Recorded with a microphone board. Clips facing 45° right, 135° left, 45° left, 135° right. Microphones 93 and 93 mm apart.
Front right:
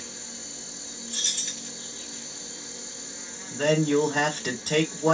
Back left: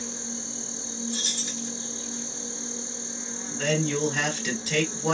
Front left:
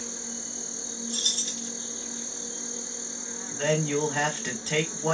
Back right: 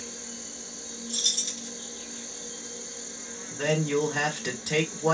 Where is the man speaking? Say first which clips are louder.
Front right 5 dB, even; 60° right, 1.9 m.